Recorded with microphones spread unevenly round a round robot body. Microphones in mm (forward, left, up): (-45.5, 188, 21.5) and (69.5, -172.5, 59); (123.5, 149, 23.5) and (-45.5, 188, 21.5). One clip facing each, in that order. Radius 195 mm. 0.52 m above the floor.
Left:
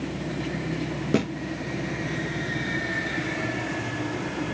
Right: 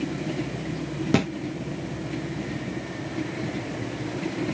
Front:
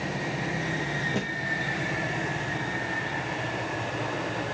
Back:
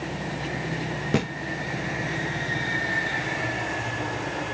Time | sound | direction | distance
1.1 | a thud | 145° right | 3.5 m